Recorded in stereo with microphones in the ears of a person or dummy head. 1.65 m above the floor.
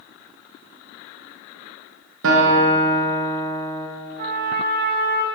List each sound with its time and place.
2.2 s a guitar: 65° right (ahead or behind), 0.9 m
4.2 s a trumpet: 50° right (ahead or behind), 0.6 m